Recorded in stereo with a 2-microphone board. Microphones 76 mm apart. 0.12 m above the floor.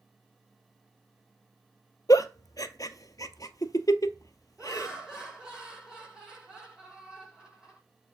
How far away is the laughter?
About 5.5 m.